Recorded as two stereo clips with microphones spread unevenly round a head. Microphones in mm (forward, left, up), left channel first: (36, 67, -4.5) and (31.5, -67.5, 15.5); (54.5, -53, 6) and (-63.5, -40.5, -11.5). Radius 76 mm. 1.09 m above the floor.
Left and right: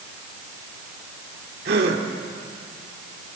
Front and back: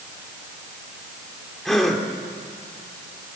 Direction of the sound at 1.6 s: 90° right.